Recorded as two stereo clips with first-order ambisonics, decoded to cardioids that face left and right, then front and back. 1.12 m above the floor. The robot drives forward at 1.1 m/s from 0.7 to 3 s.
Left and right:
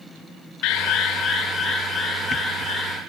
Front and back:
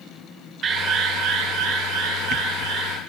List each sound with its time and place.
0.6 s an alarm: 120° left, 0.9 m; by 3.0 s 165° left, 3 m